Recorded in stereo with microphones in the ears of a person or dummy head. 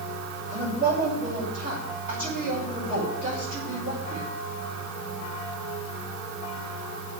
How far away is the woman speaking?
About 6.5 m.